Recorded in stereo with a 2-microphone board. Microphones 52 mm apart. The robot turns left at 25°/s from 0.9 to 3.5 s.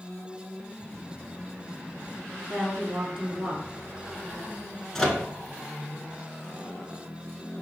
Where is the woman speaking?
20° right (ahead or behind), 1.2 m; by 3.7 s 15° right (ahead or behind), 1.2 m.